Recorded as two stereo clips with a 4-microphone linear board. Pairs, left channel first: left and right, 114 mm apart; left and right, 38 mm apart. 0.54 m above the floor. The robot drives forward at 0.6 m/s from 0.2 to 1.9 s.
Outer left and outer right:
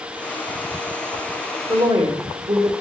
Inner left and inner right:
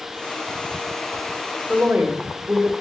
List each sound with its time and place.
1.7 s a woman speaking: 60° right (ahead or behind), 1.4 m